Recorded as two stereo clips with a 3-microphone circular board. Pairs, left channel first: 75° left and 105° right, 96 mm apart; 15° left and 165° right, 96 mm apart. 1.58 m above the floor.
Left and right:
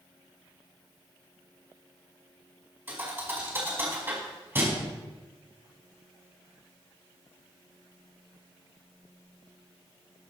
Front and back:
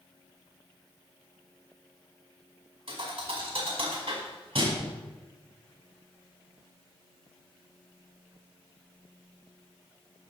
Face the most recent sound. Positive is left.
turn(degrees=-170)